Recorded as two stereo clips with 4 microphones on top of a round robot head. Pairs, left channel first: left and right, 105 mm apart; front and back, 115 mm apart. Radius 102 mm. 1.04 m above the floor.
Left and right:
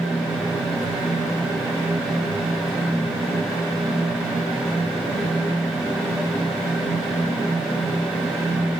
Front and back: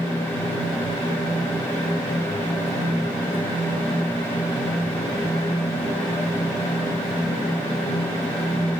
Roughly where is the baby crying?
No baby crying in this recording.